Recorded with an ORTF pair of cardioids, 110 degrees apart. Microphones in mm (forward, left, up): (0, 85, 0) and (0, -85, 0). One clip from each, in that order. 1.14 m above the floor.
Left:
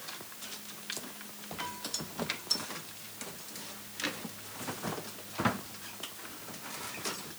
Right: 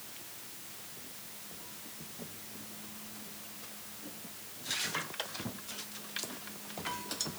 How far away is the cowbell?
No cowbell in this recording.